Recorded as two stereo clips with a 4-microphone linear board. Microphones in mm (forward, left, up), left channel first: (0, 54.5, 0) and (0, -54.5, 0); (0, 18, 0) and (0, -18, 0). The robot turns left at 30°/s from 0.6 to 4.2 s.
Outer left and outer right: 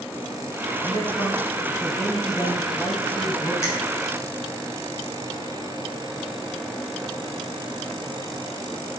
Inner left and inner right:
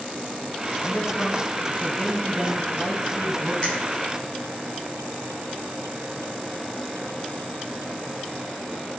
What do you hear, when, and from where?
0.8 s a man speaking: 145° left, 1.3 m; by 3.5 s 60° left, 1.3 m
3.6 s a finger snap: 30° left (ahead or behind), 1.1 m